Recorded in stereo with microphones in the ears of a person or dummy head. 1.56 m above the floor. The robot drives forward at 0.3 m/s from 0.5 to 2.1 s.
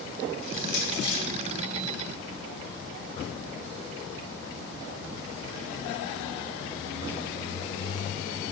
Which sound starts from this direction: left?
Crushing, at 0.4 s.